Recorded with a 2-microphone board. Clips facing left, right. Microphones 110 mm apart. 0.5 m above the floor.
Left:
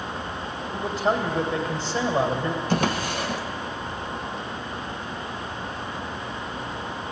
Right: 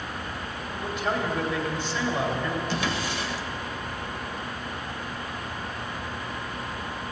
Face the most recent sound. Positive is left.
turn(degrees=50)  # may be behind; listen again after turning